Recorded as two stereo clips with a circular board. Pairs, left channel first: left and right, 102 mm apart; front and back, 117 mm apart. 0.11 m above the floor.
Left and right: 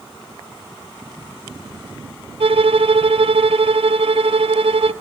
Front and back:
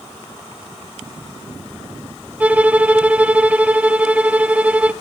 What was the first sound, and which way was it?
A violin, 100° right.